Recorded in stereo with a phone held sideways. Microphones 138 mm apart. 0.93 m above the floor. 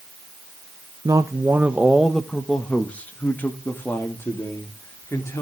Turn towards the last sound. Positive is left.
turn(degrees=20)  # may be behind; listen again after turning